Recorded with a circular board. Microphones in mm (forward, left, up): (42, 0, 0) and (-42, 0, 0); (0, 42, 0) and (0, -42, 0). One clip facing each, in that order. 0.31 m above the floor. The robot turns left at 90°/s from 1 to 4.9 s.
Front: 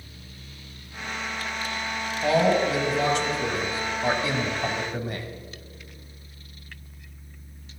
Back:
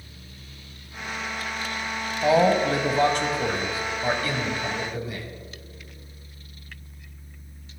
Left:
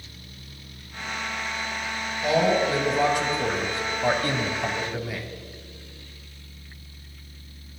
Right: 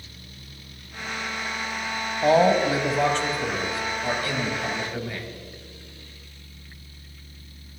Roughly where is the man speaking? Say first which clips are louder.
Back 2 dB, right 3 dB; right.